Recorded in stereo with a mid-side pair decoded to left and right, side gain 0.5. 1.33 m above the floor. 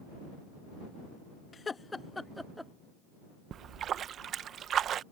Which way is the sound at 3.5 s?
55° right.